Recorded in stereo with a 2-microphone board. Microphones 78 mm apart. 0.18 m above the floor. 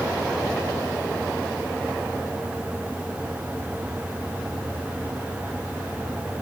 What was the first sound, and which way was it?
Only background noise.